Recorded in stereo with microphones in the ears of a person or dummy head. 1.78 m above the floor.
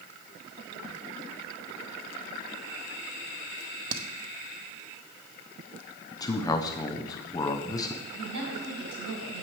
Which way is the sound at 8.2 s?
85° right.